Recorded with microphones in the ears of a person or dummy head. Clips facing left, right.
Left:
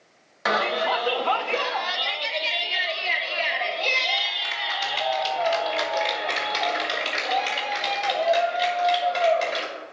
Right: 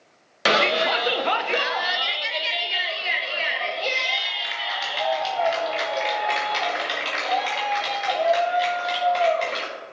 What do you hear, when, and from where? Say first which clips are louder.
0.5 s a shout: right 3 dB; 35° right (ahead or behind), 0.6 m; by 9.7 s centre (ahead or behind), 5.5 m